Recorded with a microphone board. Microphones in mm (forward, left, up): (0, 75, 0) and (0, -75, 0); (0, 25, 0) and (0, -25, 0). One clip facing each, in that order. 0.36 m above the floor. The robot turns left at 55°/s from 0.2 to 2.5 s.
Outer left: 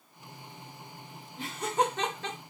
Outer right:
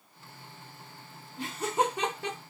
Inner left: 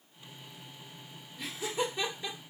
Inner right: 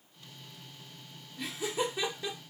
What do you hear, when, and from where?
1.4 s laughter: centre (ahead or behind), 1.1 m; by 2.4 s 15° right (ahead or behind), 1.1 m